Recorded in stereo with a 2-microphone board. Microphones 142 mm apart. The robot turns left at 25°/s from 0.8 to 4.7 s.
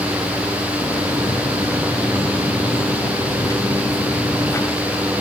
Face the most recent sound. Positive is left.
No sound to turn to.